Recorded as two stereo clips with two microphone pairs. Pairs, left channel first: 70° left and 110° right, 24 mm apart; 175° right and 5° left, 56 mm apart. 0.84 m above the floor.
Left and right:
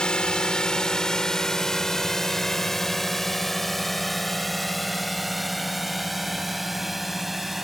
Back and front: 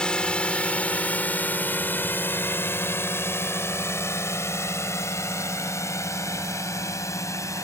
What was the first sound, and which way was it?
A drone, 110° left.